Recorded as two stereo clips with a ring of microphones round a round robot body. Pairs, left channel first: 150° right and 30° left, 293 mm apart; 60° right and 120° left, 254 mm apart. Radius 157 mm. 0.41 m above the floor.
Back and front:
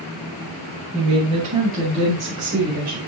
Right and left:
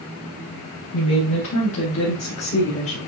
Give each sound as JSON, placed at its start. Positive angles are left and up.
{"t": 0.9, "sound": "a woman speaking", "azimuth_deg": -40, "distance_m": 3.0}